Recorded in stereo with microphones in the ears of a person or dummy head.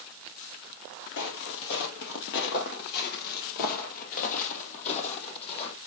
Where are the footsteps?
55° left (ahead or behind), 2 m; by 5.8 s 35° left (ahead or behind), 3 m.